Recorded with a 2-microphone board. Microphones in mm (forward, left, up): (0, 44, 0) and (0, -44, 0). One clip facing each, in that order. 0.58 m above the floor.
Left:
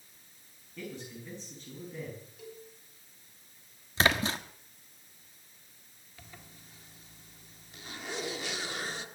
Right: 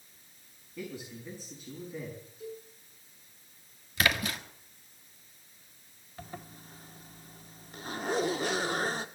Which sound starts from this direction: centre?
A man speaking, at 0.8 s.